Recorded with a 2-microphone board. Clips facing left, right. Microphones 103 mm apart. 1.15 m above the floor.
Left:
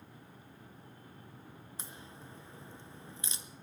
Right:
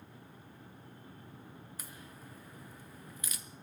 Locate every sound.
1.8 s a crack: 30° left (ahead or behind), 0.6 m